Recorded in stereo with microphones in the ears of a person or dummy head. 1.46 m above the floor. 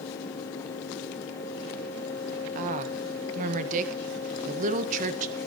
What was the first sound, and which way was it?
A woman speaking, 45° right (ahead or behind).